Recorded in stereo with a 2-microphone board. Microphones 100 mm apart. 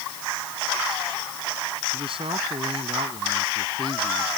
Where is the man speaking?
60° right (ahead or behind); by 4.4 s 55° right (ahead or behind).